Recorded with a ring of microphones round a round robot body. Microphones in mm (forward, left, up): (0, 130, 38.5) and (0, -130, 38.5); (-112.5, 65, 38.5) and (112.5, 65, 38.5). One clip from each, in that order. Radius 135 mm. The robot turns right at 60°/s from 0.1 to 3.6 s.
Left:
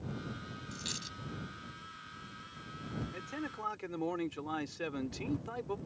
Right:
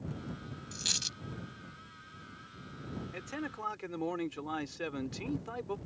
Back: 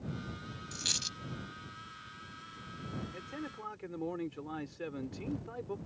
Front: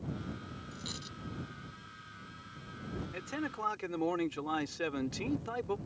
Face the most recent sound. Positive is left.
turn(degrees=-5)